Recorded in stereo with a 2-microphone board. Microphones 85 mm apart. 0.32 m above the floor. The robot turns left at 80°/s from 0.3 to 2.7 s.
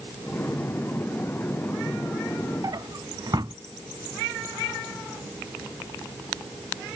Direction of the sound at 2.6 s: 55° right (ahead or behind).